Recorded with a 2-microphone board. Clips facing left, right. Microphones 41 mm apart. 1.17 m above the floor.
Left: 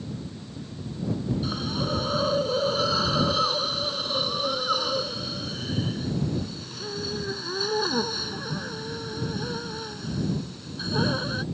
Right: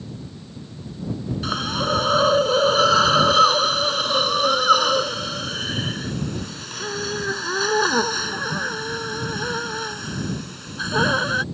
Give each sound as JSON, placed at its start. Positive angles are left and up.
{"t": 1.4, "sound": "a hiss", "side_deg": -85}